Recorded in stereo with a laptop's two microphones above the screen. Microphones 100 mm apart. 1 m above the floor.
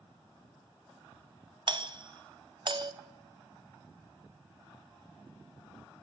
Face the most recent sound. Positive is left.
turn(degrees=-45)  # may be behind; listen again after turning